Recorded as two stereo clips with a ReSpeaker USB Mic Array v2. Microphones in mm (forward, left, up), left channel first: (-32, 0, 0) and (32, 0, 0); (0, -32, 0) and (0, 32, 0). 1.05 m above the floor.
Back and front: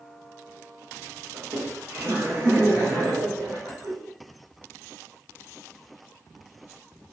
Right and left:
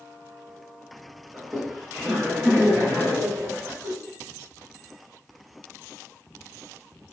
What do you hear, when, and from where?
1.3 s laughter: 15° left, 1.5 m; by 3.9 s 45° left, 2.5 m